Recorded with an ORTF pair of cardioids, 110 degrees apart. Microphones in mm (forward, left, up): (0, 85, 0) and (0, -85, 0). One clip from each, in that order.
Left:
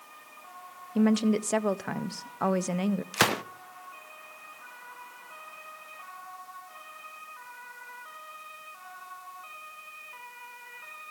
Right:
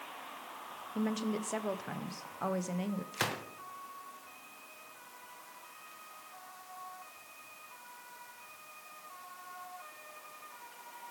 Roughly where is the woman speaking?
Ahead left.